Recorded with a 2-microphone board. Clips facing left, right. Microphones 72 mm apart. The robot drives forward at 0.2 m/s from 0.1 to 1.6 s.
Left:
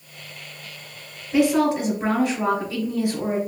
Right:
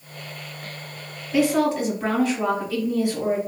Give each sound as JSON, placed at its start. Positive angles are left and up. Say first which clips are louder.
{"t": 1.3, "sound": "a woman speaking", "louder": "left 1 dB", "side_deg": 20, "distance_m": 1.8}